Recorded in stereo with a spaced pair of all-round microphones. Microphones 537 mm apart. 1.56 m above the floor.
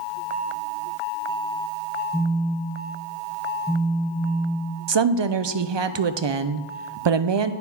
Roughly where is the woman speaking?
Right.